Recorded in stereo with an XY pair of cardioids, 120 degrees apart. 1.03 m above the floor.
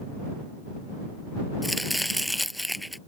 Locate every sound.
1.6 s chopping: straight ahead